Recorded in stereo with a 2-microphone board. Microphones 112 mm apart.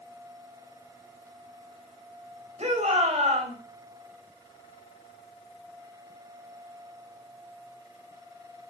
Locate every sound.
2.6 s a shout: 75° right (ahead or behind), 3.5 m